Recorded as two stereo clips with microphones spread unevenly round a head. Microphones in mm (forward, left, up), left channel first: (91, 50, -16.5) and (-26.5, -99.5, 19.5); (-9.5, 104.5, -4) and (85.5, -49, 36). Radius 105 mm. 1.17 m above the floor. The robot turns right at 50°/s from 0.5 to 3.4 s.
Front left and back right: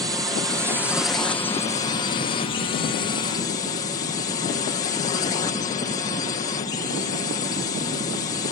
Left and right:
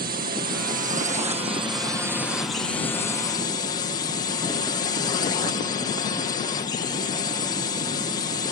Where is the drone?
50° right; by 8.5 s 95° left.